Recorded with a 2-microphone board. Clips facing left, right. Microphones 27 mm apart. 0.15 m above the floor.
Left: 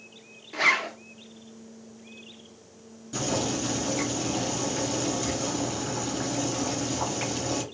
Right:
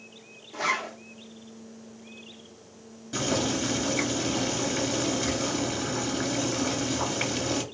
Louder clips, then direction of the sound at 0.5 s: Left 5 dB; 65° left (ahead or behind).